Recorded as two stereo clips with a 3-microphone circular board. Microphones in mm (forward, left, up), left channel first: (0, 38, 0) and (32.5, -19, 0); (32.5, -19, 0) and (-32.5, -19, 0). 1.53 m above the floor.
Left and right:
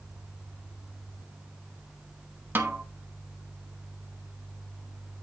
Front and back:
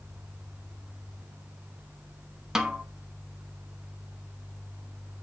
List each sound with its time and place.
2.5 s a snare drum: 100° right, 1.1 m